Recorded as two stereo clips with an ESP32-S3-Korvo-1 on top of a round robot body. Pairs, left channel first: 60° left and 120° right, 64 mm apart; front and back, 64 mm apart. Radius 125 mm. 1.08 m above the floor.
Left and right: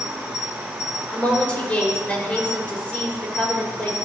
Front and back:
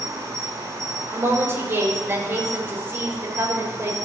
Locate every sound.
0.0 s an insect: 170° left, 3 m
1.1 s a woman speaking: 125° left, 4 m